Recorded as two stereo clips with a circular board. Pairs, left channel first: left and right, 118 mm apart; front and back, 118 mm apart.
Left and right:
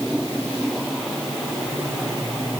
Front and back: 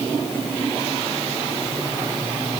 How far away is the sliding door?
No sliding door in this recording.